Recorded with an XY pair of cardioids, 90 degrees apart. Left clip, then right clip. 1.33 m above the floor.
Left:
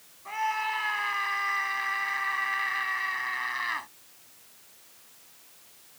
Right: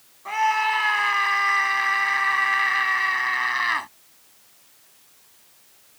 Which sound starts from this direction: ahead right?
A scream, at 0.2 s.